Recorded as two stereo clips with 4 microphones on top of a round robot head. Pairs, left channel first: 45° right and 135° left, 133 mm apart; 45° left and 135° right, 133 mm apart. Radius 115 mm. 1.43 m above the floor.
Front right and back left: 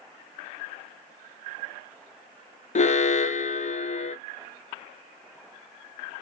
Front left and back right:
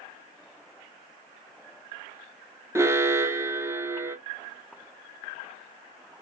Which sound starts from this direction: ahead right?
An alarm, at 2.8 s.